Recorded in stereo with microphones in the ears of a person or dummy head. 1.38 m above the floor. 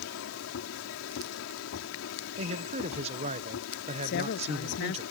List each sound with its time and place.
0.0 s a machine running: 85° left
2.4 s a man speaking: 35° right (ahead or behind)
4.0 s a woman speaking: 60° left (ahead or behind)